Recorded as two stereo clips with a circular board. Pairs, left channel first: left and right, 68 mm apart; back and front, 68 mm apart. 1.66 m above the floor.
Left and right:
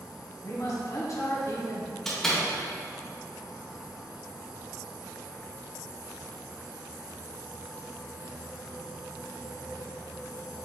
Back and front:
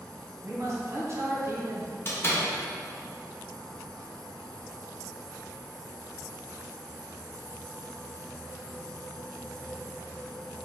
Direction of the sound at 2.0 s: 165° left.